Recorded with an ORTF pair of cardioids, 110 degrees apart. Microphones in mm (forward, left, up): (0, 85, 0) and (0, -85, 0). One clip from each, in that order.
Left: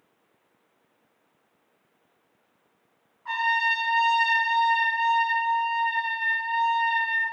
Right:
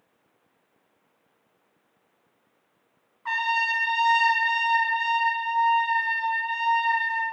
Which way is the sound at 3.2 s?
45° right.